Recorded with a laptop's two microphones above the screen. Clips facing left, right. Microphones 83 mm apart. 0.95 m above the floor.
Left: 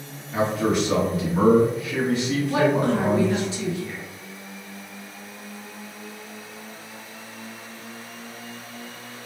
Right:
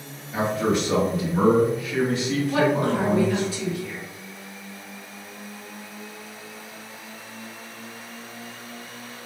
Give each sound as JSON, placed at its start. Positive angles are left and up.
{"t": 0.3, "sound": "a man speaking", "side_deg": 10, "distance_m": 1.0}
{"t": 2.5, "sound": "a woman speaking", "side_deg": 20, "distance_m": 1.0}